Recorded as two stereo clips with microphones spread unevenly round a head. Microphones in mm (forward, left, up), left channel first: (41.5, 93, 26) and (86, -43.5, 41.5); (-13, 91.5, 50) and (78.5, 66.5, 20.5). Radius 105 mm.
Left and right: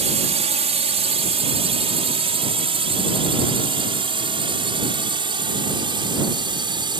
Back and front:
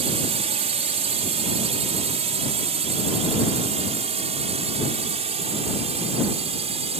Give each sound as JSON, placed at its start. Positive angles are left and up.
{"t": 0.0, "sound": "a drone", "azimuth_deg": -30}